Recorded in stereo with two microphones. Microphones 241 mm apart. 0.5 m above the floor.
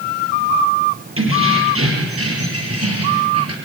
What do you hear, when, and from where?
1.2 s keys jangling: 60° right (ahead or behind), 7.5 m; by 3.5 s 85° right, 6 m